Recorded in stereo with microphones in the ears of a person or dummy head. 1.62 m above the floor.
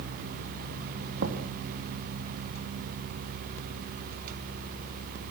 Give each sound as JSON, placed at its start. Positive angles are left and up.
{"t": 1.2, "sound": "knocking", "side_deg": -60, "distance_m": 3.0}